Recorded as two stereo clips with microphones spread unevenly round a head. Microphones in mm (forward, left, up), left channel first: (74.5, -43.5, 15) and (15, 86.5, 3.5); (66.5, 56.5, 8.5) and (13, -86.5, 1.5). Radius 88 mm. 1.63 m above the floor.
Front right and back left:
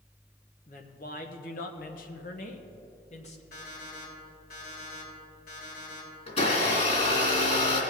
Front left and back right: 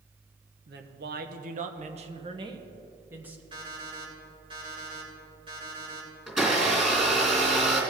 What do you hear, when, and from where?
0.7 s a woman speaking: 110° right, 1.1 m; by 3.4 s 30° right, 1.3 m
3.5 s an alarm clock: 55° right, 3.5 m
6.3 s a blender: 25° right, 3.5 m